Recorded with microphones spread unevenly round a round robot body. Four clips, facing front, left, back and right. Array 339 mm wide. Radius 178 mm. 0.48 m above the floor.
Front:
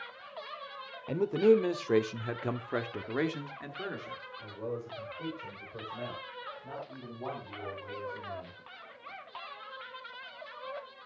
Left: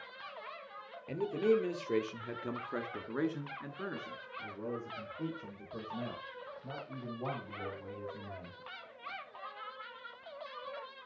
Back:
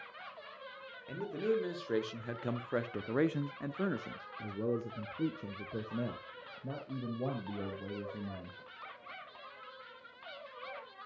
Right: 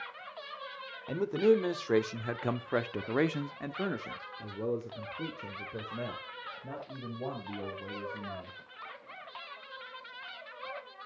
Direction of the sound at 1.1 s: 20° right.